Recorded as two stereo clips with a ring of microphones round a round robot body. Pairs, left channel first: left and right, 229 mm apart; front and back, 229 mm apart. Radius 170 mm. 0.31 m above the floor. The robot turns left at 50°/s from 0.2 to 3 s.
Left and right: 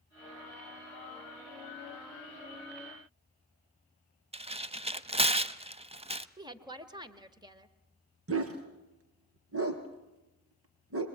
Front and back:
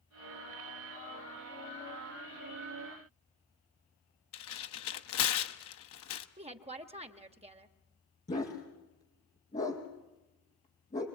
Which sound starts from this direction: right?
A dog barking, at 8.3 s.